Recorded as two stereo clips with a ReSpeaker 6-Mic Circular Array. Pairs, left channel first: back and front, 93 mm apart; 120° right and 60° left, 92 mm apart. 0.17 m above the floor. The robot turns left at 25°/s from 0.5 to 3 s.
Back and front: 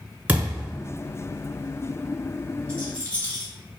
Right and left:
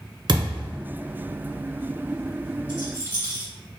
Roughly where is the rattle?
Behind right.